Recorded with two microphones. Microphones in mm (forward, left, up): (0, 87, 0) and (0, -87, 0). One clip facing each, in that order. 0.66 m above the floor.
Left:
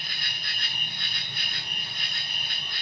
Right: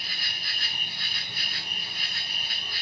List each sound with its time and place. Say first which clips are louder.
0.0 s an insect: even; 5° right (ahead or behind), 4.5 m